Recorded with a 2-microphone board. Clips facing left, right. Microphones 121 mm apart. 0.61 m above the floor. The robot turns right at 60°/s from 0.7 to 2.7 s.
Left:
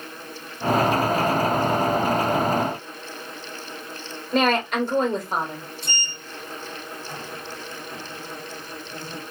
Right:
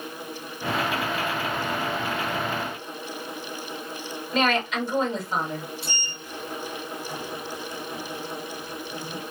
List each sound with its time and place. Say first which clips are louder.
4.3 s a woman speaking: left 3 dB; 50° left (ahead or behind), 1.3 m
5.8 s a sliding door: left 1 dB; 5° right (ahead or behind), 0.6 m